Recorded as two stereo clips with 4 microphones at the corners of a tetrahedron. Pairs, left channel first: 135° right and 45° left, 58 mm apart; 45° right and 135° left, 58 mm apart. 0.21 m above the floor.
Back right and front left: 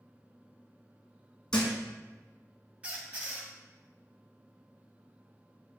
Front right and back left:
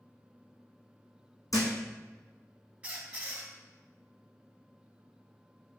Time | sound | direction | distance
1.5 | a thud | 55° right | 1.4 m
2.8 | a squeak | 90° left | 0.7 m